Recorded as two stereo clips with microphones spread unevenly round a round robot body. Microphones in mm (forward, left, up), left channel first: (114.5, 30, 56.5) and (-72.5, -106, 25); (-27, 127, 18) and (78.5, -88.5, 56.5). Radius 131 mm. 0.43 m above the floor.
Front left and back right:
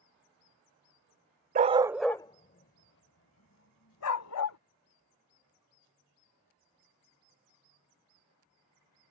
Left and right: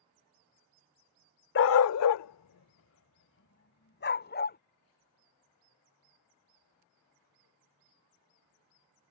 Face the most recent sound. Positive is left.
turn(degrees=65)